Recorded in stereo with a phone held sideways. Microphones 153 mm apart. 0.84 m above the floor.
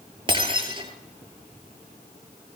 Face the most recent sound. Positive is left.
turn(degrees=-30)  # may be behind; listen again after turning